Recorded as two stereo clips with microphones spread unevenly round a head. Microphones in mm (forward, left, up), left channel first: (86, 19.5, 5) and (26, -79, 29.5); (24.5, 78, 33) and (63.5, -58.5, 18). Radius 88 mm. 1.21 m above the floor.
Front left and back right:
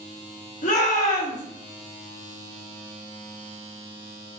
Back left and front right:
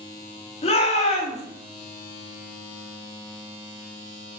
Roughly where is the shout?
Ahead left.